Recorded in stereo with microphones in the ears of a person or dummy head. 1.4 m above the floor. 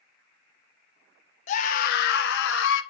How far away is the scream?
About 1.4 m.